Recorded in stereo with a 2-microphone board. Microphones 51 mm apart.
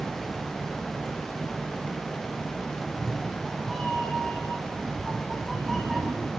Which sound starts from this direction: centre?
A cat meowing, at 2.8 s.